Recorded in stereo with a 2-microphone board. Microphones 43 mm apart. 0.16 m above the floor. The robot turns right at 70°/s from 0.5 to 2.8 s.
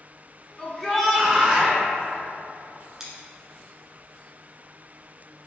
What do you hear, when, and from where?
0.6 s a shout: 160° left, 1.7 m; by 1.8 s 115° right, 1.7 m
3.0 s scissors: 5° right (ahead or behind), 1.3 m